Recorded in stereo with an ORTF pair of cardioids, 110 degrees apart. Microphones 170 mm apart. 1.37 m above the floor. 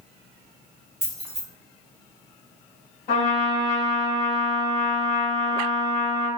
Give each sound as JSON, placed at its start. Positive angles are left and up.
{"t": 1.0, "sound": "keys jangling", "azimuth_deg": 5, "distance_m": 1.4}
{"t": 3.1, "sound": "a trumpet", "azimuth_deg": 65, "distance_m": 1.3}